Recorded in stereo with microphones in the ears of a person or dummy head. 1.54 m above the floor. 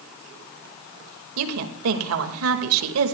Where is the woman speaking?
85° right, 2 m.